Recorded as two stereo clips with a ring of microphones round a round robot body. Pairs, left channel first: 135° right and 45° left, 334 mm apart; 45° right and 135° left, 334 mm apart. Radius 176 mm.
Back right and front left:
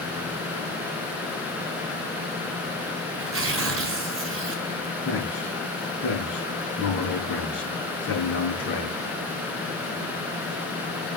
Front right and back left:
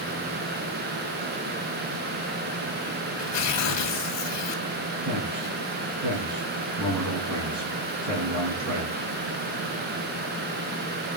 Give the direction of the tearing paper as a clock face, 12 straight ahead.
12 o'clock.